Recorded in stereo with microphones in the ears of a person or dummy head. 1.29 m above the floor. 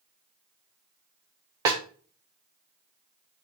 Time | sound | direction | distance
1.6 | a snare drum | 15° right (ahead or behind) | 0.6 m